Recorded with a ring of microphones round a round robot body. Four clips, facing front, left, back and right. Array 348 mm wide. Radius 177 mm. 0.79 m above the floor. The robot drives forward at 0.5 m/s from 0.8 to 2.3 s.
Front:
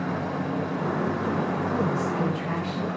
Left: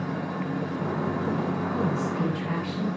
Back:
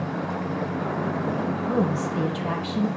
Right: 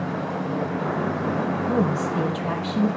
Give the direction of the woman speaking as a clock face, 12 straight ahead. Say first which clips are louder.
Right 4 dB, back 1 dB; 4 o'clock.